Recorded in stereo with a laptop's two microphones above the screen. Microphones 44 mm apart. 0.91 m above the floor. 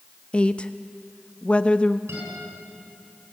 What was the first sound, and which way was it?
A woman speaking, 25° left (ahead or behind).